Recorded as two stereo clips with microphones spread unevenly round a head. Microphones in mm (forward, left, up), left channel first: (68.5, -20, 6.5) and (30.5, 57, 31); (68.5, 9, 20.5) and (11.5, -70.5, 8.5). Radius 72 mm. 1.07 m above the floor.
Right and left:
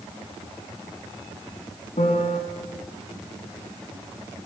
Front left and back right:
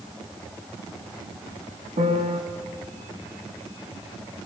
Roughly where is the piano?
Right.